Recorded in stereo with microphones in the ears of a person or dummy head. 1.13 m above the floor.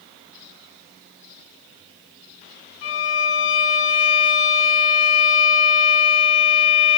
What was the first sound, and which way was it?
A violin, 30° left (ahead or behind).